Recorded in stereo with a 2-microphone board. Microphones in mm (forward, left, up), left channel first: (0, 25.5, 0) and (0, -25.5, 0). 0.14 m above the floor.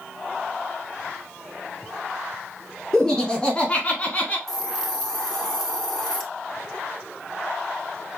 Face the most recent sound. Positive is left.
turn(degrees=5)  # may be behind; listen again after turning